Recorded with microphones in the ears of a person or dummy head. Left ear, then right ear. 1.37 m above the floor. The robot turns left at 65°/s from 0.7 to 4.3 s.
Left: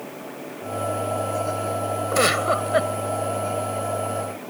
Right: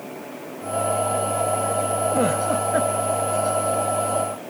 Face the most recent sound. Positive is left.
turn(degrees=-50)